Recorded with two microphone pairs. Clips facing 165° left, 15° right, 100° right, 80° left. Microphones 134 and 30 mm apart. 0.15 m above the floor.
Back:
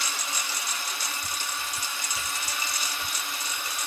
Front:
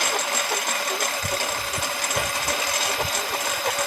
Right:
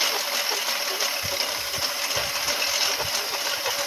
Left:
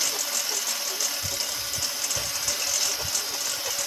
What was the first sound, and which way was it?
A lawn mower, 40° right.